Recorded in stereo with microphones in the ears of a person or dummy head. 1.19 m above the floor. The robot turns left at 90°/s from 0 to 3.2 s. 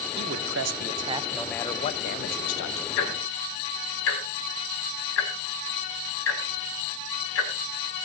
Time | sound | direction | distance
0.2 | a man speaking | 60° right | 0.6 m
3.0 | ticking | 65° left (ahead or behind) | 4 m